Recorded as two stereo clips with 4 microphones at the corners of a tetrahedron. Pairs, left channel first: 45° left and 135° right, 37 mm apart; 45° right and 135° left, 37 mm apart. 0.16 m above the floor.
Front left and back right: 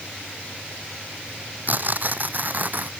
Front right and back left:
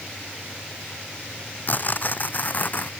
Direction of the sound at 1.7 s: 90° right.